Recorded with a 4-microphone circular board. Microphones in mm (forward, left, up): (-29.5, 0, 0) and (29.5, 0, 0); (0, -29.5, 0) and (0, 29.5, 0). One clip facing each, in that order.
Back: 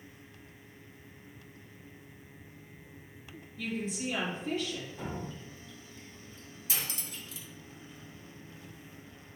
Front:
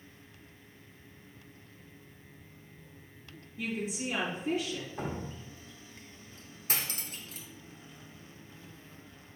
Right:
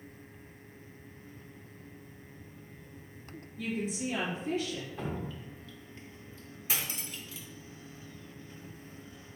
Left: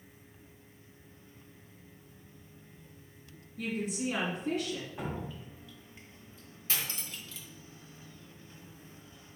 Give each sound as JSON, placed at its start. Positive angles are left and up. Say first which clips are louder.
{"t": 3.6, "sound": "a woman speaking", "louder": "even, even", "azimuth_deg": 80, "distance_m": 2.5}
{"t": 5.0, "sound": "dripping", "louder": "front 2 dB, right 1 dB", "azimuth_deg": 15, "distance_m": 1.1}
{"t": 6.7, "sound": "cutlery clinking", "louder": "front 2 dB, right 1 dB", "azimuth_deg": -15, "distance_m": 0.7}